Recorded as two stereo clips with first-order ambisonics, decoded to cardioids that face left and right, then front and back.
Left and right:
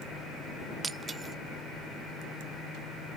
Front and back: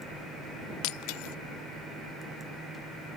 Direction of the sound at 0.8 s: 15° right.